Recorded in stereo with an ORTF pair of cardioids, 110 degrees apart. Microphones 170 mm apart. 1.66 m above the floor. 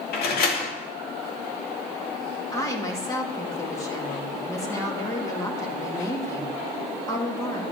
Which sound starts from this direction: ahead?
A woman speaking, at 2.5 s.